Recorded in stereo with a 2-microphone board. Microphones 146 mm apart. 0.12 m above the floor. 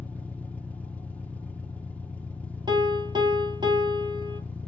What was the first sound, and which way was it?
An engine running, 10° left (ahead or behind).